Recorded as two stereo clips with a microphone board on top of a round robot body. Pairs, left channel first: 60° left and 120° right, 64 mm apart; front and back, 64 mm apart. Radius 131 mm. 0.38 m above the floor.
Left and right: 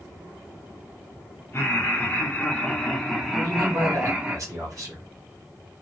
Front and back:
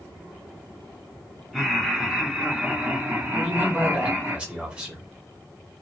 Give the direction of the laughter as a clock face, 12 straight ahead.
9 o'clock.